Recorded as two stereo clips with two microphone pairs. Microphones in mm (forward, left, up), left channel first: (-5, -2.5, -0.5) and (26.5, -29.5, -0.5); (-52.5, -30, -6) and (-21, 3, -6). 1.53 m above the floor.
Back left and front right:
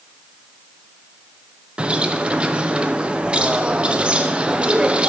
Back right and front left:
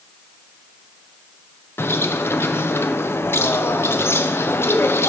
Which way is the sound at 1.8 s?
105° right.